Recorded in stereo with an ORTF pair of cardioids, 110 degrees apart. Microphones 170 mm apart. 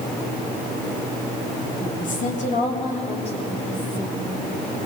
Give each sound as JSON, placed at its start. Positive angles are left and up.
{"t": 1.8, "sound": "a woman speaking", "azimuth_deg": 55, "distance_m": 4.0}